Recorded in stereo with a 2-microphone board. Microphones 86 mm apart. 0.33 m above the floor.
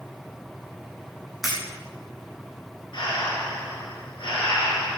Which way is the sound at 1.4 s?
Centre (ahead or behind).